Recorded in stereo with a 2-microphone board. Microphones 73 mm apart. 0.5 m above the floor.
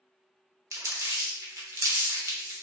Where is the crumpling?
40° right (ahead or behind), 0.6 m.